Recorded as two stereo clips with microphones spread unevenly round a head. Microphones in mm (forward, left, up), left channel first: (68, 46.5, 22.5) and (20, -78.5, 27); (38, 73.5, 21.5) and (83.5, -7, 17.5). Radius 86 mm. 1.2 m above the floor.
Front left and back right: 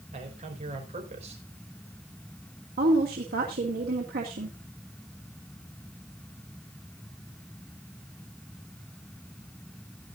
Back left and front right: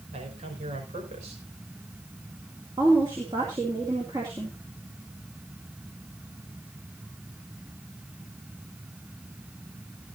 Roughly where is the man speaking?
Right.